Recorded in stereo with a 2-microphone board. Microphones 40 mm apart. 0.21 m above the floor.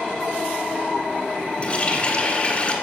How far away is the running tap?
About 1.6 m.